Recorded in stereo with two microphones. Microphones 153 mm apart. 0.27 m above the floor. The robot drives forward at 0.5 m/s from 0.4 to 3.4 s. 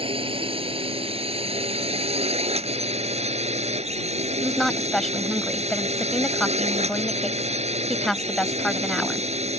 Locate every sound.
0.0 s a drone: 35° right (ahead or behind); by 9.6 s 45° right (ahead or behind)
4.4 s a woman speaking: centre (ahead or behind)